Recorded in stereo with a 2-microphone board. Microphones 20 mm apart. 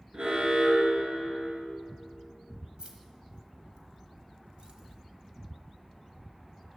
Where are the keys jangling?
45° right (ahead or behind), 1.3 m.